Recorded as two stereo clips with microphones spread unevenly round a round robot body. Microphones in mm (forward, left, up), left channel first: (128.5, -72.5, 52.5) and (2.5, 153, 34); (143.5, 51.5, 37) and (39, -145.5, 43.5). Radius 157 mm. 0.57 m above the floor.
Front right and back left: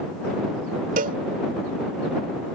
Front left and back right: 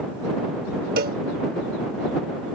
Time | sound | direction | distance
1.0 | a cowbell | straight behind | ?